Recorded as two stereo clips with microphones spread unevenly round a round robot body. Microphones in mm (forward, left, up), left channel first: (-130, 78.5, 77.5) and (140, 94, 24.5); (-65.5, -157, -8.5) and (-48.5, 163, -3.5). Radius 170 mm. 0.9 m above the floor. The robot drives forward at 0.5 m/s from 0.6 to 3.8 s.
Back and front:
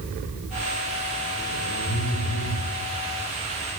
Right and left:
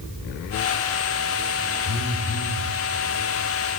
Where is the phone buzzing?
125° right, 1.1 m; by 2.6 s 140° right, 1.4 m.